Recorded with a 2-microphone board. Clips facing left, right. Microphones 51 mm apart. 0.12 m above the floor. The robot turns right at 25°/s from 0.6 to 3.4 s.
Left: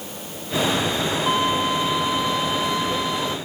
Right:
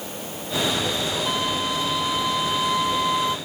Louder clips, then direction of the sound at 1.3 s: Left 7 dB; 155° left.